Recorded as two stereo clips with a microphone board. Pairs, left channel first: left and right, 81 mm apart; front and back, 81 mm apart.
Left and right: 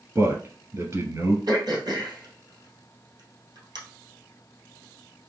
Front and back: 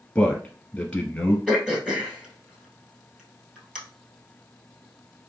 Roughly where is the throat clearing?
Right.